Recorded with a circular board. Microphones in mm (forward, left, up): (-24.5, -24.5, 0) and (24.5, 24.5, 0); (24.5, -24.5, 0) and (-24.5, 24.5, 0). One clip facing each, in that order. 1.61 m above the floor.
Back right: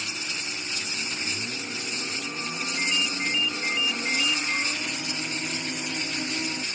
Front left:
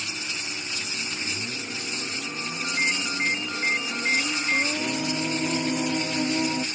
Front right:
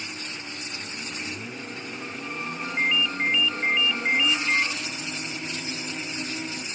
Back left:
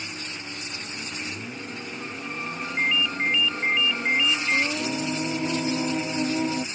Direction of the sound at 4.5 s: 95° left.